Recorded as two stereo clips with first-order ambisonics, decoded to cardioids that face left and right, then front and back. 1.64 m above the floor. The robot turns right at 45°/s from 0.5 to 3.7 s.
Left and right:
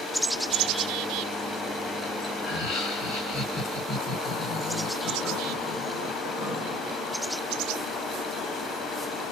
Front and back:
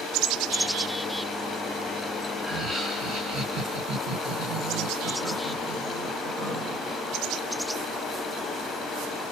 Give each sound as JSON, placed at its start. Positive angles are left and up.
{"t": 2.4, "sound": "laughter", "azimuth_deg": 90, "distance_m": 2.0}